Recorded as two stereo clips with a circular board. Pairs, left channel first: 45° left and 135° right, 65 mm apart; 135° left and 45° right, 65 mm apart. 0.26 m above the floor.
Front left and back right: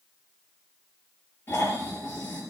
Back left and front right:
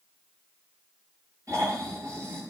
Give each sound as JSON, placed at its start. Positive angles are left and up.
{"t": 1.5, "sound": "snoring", "azimuth_deg": -10, "distance_m": 6.0}